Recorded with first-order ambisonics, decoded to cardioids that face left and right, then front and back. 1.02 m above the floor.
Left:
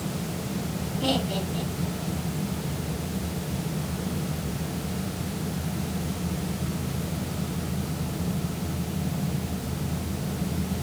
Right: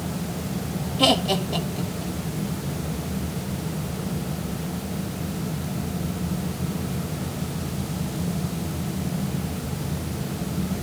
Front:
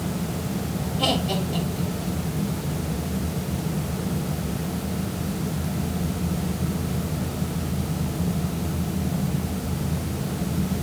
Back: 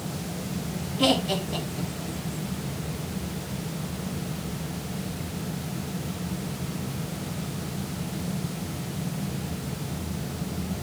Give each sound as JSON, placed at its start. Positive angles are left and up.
{"t": 1.0, "sound": "laughter", "azimuth_deg": -100, "distance_m": 2.5}